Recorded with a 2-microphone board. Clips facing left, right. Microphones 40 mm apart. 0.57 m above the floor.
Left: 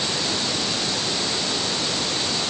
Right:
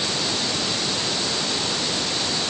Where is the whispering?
I don't hear whispering.